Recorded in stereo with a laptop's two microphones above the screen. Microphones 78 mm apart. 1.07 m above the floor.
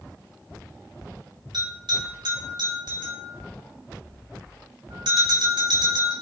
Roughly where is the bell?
Right.